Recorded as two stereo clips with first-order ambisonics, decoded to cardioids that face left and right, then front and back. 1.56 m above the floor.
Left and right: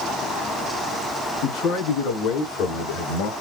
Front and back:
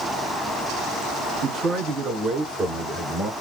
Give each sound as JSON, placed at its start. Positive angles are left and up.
{"t": 1.4, "sound": "a man speaking", "azimuth_deg": 120, "distance_m": 3.0}